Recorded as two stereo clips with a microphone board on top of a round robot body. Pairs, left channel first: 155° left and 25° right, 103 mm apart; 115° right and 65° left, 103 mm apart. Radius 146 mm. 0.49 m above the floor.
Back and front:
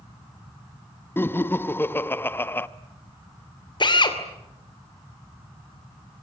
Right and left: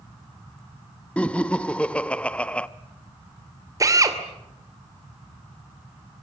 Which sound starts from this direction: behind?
Laughter, at 1.2 s.